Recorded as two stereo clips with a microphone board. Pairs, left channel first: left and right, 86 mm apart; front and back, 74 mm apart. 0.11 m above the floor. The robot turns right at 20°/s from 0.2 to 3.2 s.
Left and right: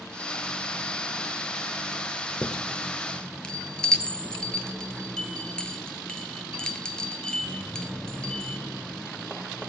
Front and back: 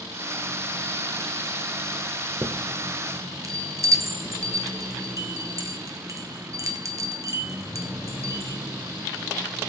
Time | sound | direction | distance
2.4 | a chime | 150° left | 1.0 m